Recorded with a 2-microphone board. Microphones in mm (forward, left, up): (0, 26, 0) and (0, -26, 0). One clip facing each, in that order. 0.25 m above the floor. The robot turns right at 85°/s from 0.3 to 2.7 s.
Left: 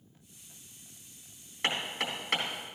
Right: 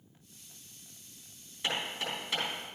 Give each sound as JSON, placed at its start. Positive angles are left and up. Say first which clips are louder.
{"t": 1.6, "sound": "hammering", "louder": "left 2 dB", "side_deg": 60, "distance_m": 3.5}